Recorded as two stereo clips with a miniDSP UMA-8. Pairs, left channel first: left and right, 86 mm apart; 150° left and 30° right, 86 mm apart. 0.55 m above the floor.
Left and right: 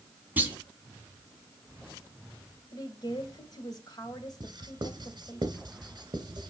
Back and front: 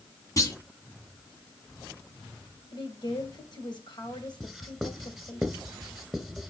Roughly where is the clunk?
Behind.